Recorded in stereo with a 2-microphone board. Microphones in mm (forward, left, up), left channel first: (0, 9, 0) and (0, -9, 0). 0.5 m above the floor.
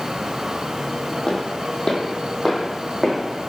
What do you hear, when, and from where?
1.3 s footsteps: 60° left (ahead or behind), 0.9 m; by 3.5 s centre (ahead or behind), 1.4 m